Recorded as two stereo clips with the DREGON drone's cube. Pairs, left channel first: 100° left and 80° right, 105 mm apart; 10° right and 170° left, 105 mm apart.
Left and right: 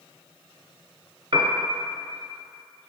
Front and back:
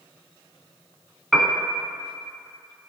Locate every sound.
1.3 s a piano: 100° right, 0.6 m